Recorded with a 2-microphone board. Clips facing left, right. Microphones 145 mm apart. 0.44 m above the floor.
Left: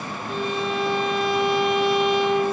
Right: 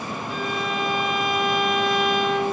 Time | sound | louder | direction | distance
0.3 | a violin | left 3 dB | 25° left (ahead or behind) | 10 m